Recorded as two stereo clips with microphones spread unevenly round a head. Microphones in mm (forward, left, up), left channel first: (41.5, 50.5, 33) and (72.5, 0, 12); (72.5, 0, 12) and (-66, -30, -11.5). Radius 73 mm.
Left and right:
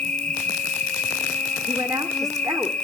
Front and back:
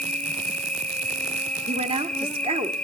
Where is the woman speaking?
115° right, 2 m.